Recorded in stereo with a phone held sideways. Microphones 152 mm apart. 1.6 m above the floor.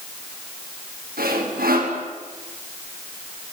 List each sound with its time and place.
1.2 s sawing: 75° right (ahead or behind), 6.5 m